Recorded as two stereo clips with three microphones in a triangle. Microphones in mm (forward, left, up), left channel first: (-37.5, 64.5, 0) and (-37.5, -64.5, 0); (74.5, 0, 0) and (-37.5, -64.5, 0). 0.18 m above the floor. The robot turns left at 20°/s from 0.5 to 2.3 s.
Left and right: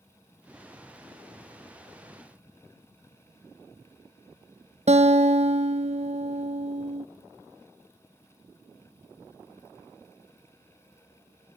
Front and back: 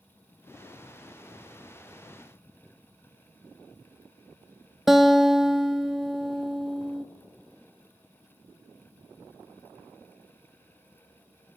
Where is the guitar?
65° right, 1.0 m.